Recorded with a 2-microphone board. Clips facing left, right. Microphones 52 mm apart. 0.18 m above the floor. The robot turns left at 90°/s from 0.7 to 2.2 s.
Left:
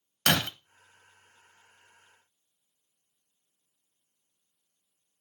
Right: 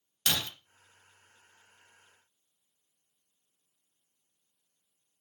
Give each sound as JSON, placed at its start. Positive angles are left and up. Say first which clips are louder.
{"t": 0.3, "sound": "breaking glass", "louder": "left 7 dB", "side_deg": 60, "distance_m": 0.7}